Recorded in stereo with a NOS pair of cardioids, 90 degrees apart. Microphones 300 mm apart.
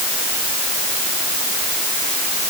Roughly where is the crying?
No crying in this recording.